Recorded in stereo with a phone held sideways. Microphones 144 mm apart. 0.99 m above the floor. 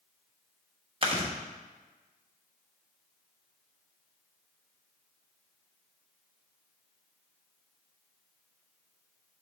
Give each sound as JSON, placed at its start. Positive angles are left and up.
{"t": 1.0, "sound": "chewing", "side_deg": -40, "distance_m": 1.0}